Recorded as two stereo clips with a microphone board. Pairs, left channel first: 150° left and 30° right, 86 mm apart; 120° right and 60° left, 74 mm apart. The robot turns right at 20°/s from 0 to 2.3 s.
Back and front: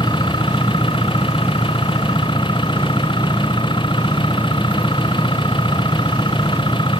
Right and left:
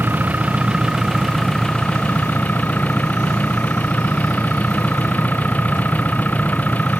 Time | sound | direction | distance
0.0 | an engine running | 125° left | ?